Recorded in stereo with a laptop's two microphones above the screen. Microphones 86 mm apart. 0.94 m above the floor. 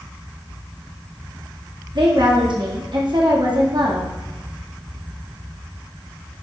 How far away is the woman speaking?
About 1.6 m.